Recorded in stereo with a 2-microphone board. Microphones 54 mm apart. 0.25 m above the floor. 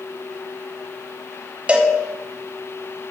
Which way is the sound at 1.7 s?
20° right (ahead or behind).